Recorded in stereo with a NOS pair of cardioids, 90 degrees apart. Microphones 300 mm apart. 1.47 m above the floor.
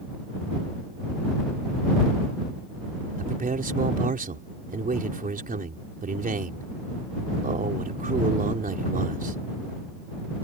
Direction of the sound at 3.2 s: 30° right.